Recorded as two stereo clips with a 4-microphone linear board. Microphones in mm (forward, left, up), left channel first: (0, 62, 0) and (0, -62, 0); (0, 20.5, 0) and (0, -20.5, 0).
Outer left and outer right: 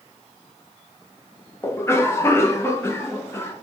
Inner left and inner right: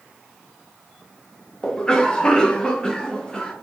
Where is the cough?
20° left (ahead or behind), 0.6 m.